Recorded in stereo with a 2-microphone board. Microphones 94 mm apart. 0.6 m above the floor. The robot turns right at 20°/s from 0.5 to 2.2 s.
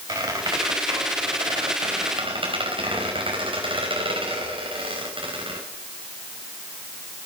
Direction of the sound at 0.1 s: 35° right (ahead or behind).